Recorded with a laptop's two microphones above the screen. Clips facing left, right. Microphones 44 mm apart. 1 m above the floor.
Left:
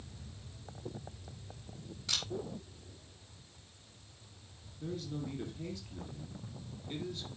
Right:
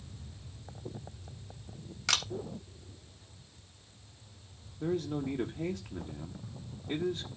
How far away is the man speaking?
About 1.3 m.